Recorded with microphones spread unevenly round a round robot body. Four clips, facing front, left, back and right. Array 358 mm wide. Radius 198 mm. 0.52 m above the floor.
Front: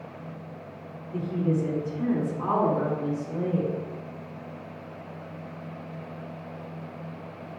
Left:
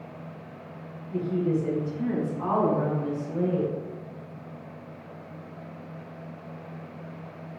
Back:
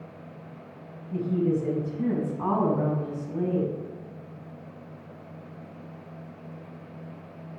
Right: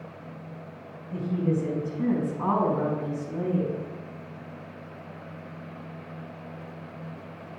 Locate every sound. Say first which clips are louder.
1.1 s a woman speaking: left 1 dB, back 2 dB; 150° right, 3.5 m; by 3.7 s 135° right, 4.5 m